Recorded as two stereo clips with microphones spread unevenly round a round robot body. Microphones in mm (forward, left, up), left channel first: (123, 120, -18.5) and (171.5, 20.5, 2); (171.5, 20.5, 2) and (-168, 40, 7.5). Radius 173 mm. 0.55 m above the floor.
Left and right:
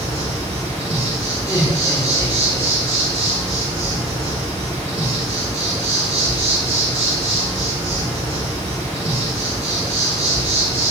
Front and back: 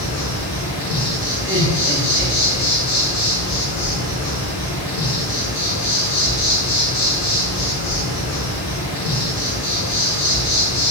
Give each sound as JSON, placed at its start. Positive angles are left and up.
{"t": 0.0, "sound": "an insect", "azimuth_deg": -40, "distance_m": 1.3}
{"t": 1.4, "sound": "laughter", "azimuth_deg": 145, "distance_m": 0.7}